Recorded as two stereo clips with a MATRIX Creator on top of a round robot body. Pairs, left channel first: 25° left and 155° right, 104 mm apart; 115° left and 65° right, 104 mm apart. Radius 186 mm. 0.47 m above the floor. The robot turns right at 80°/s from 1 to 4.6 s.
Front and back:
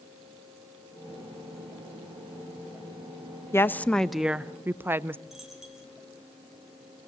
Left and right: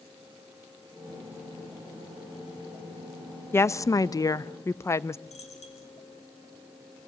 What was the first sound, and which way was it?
A woman speaking, 65° left.